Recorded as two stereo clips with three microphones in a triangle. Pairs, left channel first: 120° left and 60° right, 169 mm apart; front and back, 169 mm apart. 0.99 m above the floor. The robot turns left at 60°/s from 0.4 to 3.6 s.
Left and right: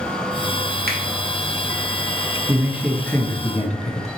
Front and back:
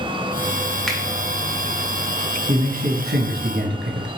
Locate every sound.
0.9 s a finger snap: 85° right, 0.9 m; by 1.0 s 95° right, 0.9 m
2.5 s a man speaking: 125° right, 0.8 m; by 4.1 s 170° left, 0.8 m